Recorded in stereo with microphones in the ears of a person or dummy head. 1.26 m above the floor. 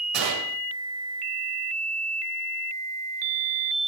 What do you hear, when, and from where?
0.1 s a gunshot: 70° right (ahead or behind), 7.5 m